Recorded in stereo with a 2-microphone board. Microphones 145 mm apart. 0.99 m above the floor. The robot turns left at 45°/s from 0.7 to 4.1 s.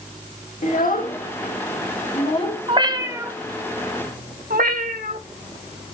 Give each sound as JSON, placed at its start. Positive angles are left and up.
{"t": 0.6, "sound": "a child speaking", "side_deg": 65, "distance_m": 1.8}
{"t": 2.7, "sound": "a cat meowing", "side_deg": -35, "distance_m": 1.2}
{"t": 4.5, "sound": "a cat meowing", "side_deg": -75, "distance_m": 1.2}